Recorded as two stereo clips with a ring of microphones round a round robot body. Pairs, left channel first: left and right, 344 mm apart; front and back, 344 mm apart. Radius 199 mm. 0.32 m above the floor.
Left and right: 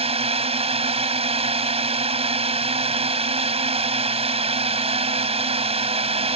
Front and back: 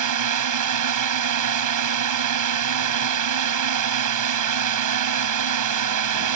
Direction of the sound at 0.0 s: 160° right.